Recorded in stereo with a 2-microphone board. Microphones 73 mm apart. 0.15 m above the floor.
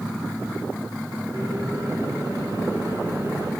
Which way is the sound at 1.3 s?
65° right (ahead or behind).